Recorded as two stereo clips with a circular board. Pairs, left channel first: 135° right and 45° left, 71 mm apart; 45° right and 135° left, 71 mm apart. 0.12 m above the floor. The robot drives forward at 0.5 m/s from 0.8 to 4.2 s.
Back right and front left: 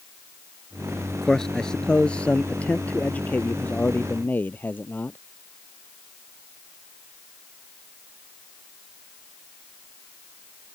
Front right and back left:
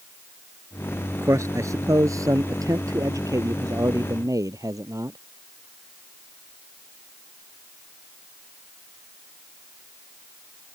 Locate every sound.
1.2 s a man speaking: 145° left; by 5.2 s 165° left